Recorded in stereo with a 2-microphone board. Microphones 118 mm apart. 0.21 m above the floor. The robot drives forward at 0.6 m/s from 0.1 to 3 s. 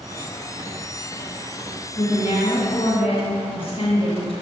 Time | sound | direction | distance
2.0 | a woman speaking | 50° left (ahead or behind) | 2.5 m